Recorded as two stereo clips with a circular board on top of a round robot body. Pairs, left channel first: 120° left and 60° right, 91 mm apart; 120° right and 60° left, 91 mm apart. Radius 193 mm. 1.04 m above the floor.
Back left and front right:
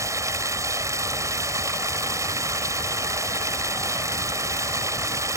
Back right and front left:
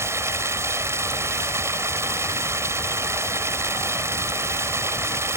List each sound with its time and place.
0.0 s running water: straight ahead